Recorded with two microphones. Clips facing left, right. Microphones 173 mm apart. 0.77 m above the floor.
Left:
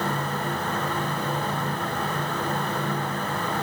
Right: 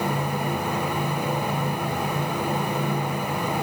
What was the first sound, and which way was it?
Only background noise.